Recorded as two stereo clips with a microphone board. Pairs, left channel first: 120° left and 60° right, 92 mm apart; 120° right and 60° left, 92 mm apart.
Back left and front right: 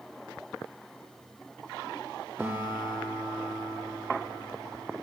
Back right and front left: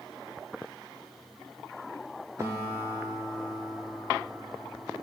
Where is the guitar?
10° left, 4 m.